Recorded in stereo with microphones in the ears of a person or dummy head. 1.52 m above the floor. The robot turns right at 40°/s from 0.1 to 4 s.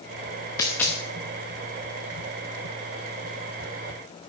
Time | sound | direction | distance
0.6 | a dropped coin | 15° left (ahead or behind) | 0.9 m